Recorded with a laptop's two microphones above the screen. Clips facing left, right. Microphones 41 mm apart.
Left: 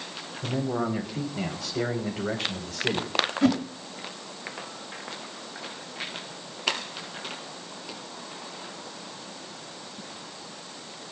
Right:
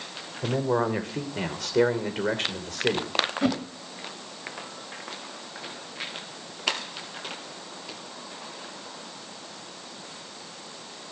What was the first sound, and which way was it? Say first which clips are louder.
A man speaking: right 3 dB; 80° right.